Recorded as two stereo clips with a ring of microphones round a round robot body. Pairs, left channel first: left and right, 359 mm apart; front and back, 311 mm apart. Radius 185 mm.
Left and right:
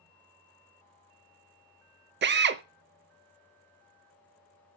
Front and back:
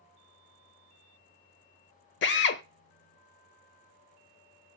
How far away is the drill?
About 0.5 m.